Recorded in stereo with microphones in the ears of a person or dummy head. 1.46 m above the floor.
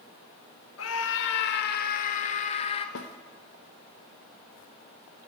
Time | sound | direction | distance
0.8 | a scream | 85° left | 3 m
3.0 | a snare drum | 70° left (ahead or behind) | 2.5 m